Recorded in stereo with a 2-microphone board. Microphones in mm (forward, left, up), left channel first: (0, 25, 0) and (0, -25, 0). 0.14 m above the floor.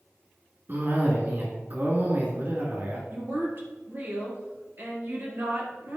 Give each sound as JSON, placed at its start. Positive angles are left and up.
{"t": 0.7, "sound": "a cough", "side_deg": -45, "distance_m": 1.7}
{"t": 3.1, "sound": "a woman speaking", "side_deg": -45, "distance_m": 2.5}